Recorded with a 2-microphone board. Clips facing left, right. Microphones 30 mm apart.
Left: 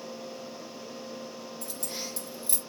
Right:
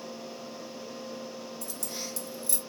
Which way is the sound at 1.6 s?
25° left (ahead or behind).